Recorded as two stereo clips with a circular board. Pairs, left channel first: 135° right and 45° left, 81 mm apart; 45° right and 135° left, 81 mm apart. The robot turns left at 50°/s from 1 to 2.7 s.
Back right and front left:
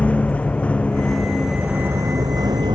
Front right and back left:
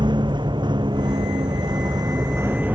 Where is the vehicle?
150° left; by 2.7 s 65° left.